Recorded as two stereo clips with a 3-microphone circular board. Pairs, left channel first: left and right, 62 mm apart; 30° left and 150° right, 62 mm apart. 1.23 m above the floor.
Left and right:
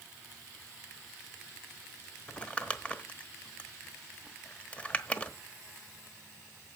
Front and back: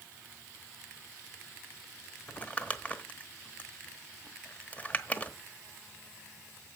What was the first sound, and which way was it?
Crumpling, 50° left.